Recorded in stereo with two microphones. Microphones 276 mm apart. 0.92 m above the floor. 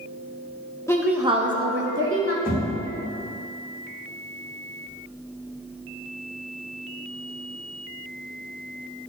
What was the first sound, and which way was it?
A woman speaking, 10° left (ahead or behind).